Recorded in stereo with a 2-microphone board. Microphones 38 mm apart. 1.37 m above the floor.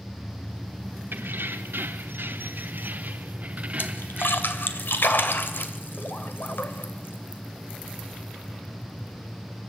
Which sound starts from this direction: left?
A splash, at 3.8 s.